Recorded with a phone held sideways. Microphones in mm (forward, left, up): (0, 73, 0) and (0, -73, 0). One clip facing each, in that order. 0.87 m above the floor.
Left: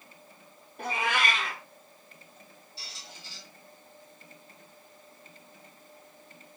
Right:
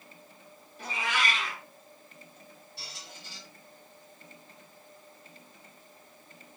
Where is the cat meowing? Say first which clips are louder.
Left 3 dB; 60° left (ahead or behind), 0.8 m.